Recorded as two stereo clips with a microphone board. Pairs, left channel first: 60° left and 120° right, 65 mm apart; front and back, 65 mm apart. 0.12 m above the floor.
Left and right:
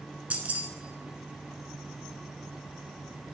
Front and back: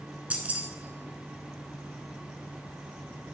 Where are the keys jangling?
150° right, 0.8 m.